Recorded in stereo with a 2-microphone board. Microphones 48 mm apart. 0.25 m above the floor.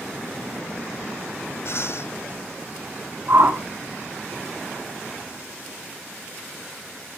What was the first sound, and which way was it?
Breathing, 60° left (ahead or behind).